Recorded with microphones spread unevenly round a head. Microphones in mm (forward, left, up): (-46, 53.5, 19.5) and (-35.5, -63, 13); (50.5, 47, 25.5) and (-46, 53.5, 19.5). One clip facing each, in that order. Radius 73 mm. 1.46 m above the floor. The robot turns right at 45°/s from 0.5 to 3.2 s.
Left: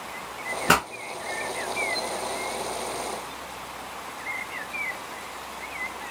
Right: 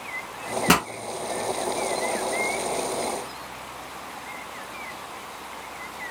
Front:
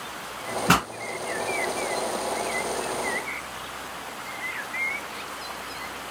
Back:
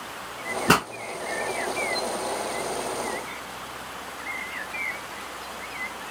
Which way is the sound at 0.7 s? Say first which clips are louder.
Right 1 dB, back 1 dB; 120° right.